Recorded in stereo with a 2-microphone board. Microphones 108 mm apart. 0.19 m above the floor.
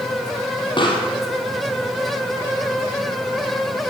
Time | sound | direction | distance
0.8 | a pop | 45° left (ahead or behind) | 2.5 m